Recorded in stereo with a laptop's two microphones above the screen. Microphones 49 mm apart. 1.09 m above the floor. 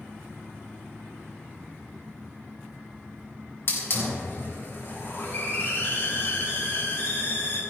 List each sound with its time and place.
3.7 s a hiss: 55° left (ahead or behind), 3.5 m